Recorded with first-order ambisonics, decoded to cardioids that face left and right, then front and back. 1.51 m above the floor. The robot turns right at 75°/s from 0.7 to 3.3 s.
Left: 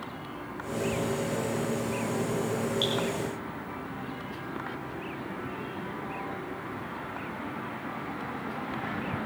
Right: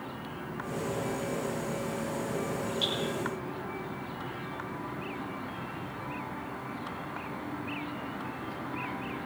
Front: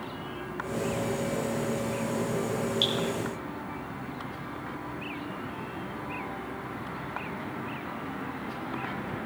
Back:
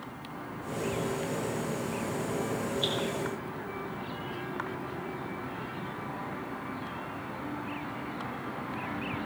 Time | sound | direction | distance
2.8 | dripping | 15° left | 5 m